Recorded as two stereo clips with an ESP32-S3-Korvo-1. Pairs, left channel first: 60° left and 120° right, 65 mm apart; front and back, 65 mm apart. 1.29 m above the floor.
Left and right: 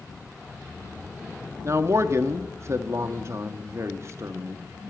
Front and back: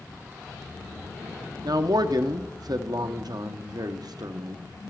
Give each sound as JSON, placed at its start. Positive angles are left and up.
{"t": 1.6, "sound": "a man speaking", "azimuth_deg": -170, "distance_m": 0.8}